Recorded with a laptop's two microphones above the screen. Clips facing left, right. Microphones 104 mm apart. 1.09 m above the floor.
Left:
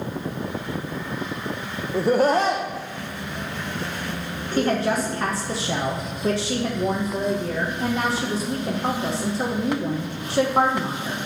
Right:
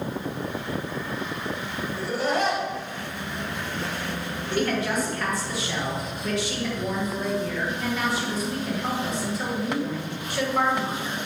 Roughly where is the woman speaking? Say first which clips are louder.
Left 4 dB; left.